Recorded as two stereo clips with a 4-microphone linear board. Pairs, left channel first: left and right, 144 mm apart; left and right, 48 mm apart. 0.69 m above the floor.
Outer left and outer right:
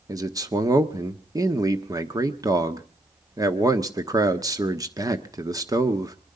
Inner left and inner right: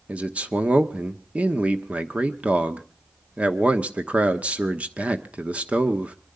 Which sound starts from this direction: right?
A man speaking, at 0.1 s.